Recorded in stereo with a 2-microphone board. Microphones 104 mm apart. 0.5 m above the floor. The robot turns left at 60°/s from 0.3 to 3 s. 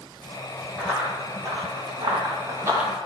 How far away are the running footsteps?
About 1.9 m.